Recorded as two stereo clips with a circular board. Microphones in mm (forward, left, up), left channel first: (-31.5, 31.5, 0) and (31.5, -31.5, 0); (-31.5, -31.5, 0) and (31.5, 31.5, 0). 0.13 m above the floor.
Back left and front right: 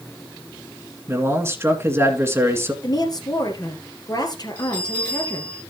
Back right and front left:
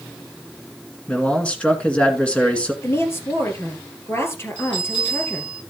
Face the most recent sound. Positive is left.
turn(degrees=-150)